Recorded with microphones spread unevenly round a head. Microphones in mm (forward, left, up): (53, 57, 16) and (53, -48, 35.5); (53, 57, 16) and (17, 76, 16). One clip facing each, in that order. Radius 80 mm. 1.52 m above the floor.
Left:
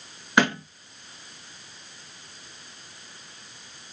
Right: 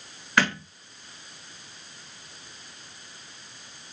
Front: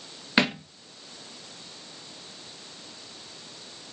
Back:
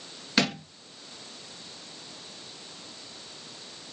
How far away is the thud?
About 0.9 m.